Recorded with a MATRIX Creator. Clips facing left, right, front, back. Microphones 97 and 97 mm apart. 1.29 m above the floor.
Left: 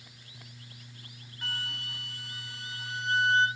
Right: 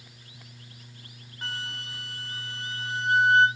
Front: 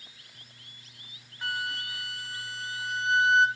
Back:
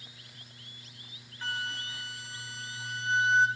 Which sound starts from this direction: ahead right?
A flute, at 1.4 s.